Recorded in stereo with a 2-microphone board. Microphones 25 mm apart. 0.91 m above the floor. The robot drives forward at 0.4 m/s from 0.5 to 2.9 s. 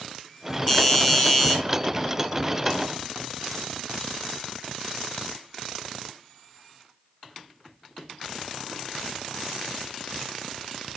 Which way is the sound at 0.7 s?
15° left (ahead or behind).